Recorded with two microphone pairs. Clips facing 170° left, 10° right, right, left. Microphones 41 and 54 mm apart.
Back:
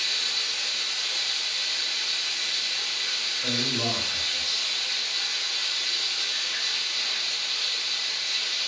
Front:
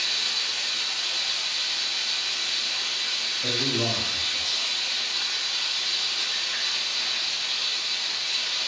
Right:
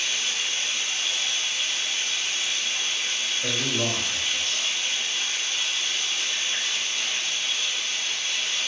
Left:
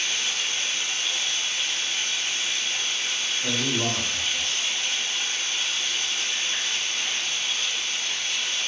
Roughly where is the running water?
Ahead left.